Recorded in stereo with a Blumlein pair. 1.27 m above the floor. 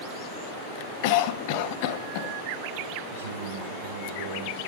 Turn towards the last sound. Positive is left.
turn(degrees=-65)